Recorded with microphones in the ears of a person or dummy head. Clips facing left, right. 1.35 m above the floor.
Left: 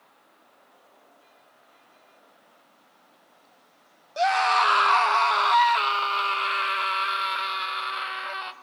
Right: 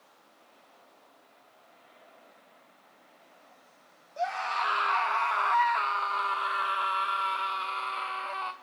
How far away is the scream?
About 1.2 m.